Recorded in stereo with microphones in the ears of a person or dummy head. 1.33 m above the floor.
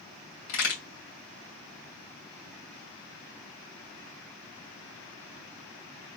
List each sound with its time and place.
0.5 s a crack: 75° left (ahead or behind), 3 m